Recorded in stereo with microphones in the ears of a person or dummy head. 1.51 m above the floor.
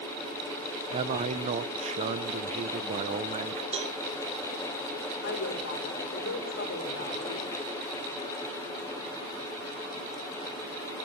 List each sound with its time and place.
0.9 s a man speaking: 40° right (ahead or behind), 0.8 m
3.7 s a cowbell: 35° right (ahead or behind), 0.7 m
5.2 s a woman speaking: 60° left (ahead or behind), 6.5 m